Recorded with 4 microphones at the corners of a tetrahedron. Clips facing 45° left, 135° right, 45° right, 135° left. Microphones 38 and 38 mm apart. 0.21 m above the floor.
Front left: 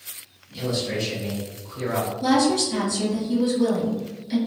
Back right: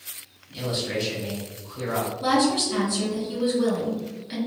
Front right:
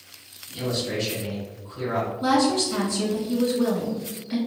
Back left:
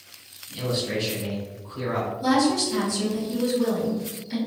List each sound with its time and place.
0.5 s a man speaking: 150° right, 1.6 m; by 2.1 s 125° left, 1.6 m
2.2 s a woman speaking: 85° right, 1.5 m